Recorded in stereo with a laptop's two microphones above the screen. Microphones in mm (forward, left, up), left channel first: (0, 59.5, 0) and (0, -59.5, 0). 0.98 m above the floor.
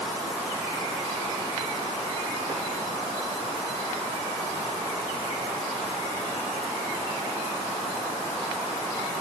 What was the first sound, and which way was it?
Only background noise.